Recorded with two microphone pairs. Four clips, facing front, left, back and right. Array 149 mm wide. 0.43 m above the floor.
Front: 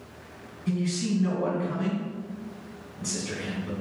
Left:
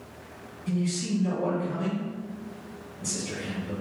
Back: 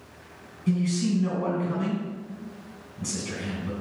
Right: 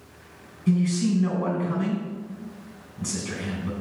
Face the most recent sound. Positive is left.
turn(degrees=-95)